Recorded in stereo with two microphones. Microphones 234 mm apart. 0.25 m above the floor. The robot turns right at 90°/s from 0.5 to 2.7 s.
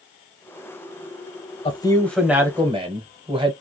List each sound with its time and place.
1.6 s a man speaking: 20° left (ahead or behind), 1.0 m; by 3.5 s 20° right (ahead or behind), 1.0 m